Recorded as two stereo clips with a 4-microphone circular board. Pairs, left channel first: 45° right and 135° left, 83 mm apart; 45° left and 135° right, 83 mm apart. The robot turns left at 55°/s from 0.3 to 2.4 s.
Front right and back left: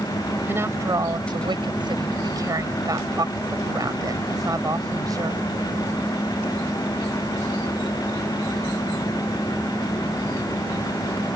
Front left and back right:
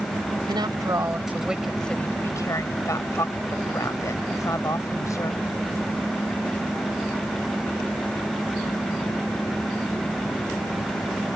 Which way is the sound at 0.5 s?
160° right.